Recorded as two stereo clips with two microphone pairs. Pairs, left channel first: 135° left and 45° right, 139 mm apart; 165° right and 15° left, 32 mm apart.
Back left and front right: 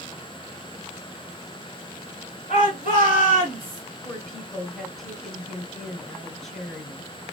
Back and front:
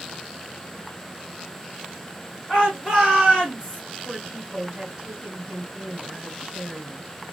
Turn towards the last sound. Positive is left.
turn(degrees=35)